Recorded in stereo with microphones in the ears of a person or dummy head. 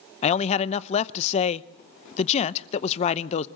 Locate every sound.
0.2 s a man speaking: 40° left (ahead or behind), 0.7 m